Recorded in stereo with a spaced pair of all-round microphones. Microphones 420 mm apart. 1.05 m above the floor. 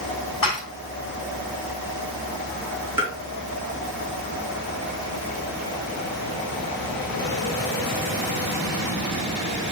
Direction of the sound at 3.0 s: 5° right (ahead or behind).